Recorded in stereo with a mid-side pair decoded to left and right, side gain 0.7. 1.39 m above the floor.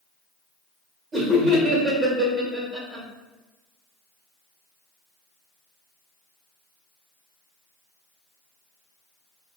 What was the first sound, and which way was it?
Laughter, 25° right.